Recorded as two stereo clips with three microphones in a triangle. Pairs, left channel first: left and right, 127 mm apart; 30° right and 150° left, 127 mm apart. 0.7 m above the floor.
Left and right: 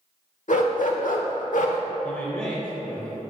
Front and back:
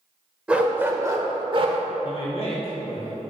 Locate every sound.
0.5 s a dog barking: 70° left, 1.0 m; by 1.8 s 110° left, 0.8 m
2.0 s a man speaking: 20° left, 1.6 m